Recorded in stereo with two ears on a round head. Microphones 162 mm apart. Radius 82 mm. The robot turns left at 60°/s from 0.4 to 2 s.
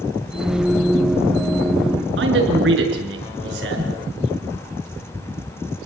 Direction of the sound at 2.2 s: 80° right.